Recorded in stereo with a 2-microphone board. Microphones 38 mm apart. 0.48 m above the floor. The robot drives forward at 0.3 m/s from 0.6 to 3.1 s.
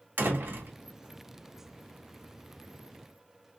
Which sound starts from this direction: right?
A door slam, at 0.2 s.